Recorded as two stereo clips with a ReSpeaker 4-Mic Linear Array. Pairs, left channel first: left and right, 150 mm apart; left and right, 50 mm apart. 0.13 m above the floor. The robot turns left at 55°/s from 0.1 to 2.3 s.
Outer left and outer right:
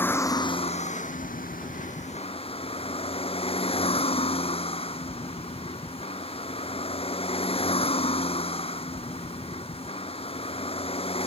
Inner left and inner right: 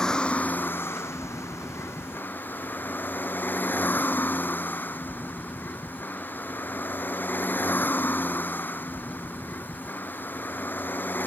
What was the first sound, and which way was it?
A vehicle, 165° left.